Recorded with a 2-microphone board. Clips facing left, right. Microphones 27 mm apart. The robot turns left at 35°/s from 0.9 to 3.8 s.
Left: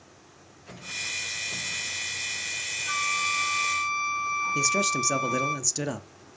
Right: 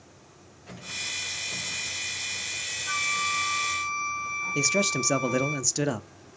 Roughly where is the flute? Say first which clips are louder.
Even; behind left.